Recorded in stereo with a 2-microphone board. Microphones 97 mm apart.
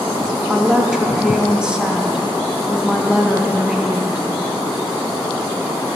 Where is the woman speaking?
10° right (ahead or behind), 0.6 m.